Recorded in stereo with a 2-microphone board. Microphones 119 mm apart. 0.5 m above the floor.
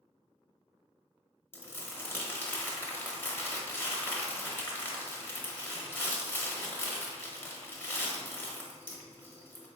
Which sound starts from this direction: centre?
Crumpling, at 1.5 s.